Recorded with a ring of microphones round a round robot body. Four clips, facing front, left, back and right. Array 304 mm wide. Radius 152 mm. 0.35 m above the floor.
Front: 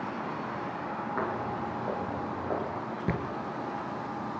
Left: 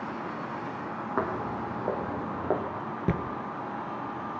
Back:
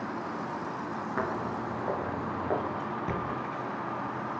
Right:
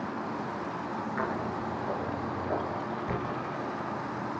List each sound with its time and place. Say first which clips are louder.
1.2 s footsteps: left 4 dB, back 1 dB; 95° left, 5 m; by 2.6 s 100° left, 4.5 m
3.1 s a thud: left 6 dB, front 3 dB; 70° left, 3 m